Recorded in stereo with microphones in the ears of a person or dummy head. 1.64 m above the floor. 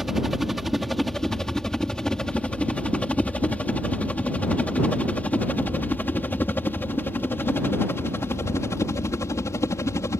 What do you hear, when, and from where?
0.0 s a helicopter: centre (ahead or behind); by 10.2 s 15° left (ahead or behind)